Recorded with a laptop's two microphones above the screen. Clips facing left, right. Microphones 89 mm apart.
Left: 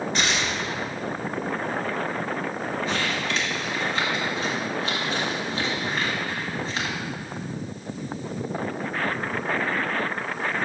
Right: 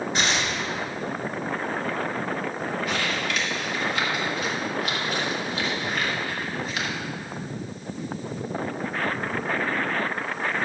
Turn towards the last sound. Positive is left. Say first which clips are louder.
# even
turn(degrees=30)  # may be behind; listen again after turning